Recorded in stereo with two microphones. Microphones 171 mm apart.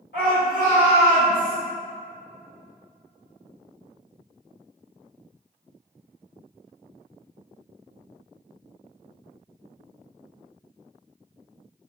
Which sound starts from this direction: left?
A shout, at 0.1 s.